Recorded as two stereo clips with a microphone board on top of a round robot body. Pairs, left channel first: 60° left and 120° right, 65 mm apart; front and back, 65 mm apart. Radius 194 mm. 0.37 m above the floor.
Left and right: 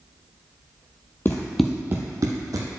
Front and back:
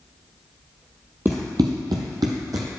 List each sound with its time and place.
1.2 s running footsteps: 115° left, 0.6 m; by 2.7 s 150° right, 1.1 m